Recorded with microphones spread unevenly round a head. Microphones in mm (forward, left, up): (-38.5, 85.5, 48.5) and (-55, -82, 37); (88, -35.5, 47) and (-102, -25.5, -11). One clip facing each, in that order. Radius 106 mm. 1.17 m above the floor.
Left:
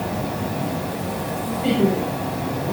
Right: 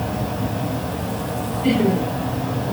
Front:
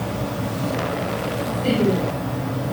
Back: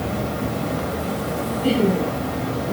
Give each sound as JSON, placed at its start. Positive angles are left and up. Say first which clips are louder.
{"t": 0.0, "sound": "an insect", "louder": "right 1 dB, back 1 dB", "azimuth_deg": 165, "distance_m": 1.2}
{"t": 1.6, "sound": "laughter", "louder": "right 1 dB, back 1 dB", "azimuth_deg": 160, "distance_m": 2.5}